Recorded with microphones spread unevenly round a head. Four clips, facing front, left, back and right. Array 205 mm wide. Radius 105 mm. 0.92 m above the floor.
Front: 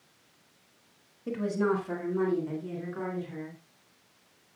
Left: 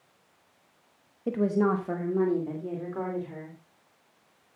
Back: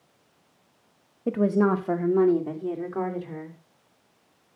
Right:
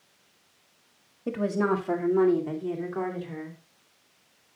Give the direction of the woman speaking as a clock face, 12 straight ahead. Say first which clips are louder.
Left 1 dB, back 6 dB; 6 o'clock.